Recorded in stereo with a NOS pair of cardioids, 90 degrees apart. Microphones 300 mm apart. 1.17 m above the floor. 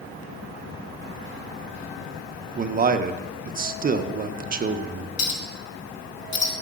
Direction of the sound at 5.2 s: 65° left.